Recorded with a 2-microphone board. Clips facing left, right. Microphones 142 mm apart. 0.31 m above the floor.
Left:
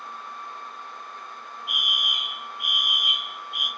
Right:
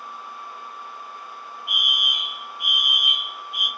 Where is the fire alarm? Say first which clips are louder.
Even; 20° right (ahead or behind), 1.9 m.